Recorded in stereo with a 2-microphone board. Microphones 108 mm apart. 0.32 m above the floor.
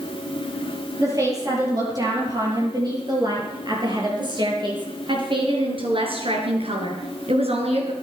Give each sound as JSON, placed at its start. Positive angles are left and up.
{"t": 1.0, "sound": "a woman speaking", "side_deg": -30, "distance_m": 7.5}